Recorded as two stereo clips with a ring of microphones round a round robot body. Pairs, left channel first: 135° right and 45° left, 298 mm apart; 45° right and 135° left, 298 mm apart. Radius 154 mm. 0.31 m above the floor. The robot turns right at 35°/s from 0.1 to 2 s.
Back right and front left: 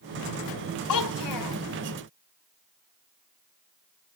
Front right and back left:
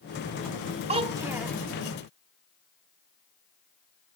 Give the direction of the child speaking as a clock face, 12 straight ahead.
5 o'clock.